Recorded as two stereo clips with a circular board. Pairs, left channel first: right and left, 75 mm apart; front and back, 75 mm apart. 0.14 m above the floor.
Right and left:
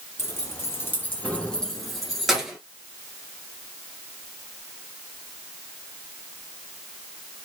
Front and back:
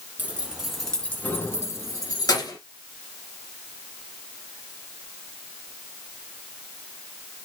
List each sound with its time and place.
0.2 s keys jangling: 120° right, 1.1 m; by 2.6 s 10° left, 1.6 m